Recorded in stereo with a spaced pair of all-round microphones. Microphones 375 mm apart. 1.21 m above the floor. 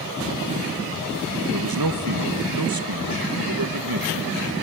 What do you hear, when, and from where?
1.5 s a man speaking: 65° right (ahead or behind), 1.2 m